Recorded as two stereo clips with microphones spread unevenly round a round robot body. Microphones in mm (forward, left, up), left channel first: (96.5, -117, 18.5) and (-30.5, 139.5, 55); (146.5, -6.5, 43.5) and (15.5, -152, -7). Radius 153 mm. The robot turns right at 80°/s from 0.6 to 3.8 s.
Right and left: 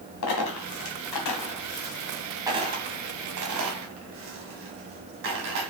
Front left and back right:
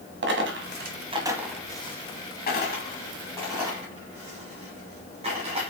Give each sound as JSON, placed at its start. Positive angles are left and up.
{"t": 0.2, "sound": "a dropped coin", "azimuth_deg": -105, "distance_m": 1.3}